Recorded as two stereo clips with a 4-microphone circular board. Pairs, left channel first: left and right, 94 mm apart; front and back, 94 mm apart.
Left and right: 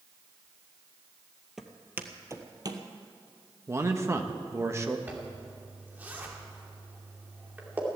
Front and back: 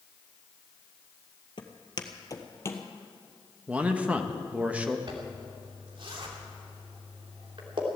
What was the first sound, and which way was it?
Footsteps, 5° right.